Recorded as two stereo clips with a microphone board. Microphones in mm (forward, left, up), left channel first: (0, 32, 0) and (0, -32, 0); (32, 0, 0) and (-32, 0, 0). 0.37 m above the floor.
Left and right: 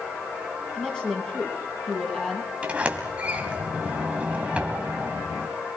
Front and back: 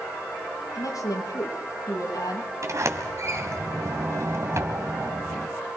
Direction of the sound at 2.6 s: 160° right.